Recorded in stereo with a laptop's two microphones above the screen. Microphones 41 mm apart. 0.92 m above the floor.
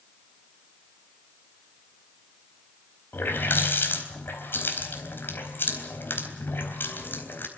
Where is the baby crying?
No baby crying in this recording.